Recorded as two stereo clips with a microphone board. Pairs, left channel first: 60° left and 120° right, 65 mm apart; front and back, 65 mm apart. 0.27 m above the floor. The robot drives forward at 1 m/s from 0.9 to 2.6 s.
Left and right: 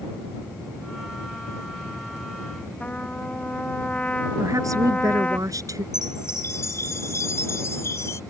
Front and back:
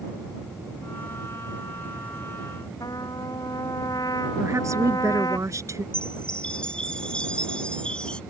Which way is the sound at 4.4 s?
145° right.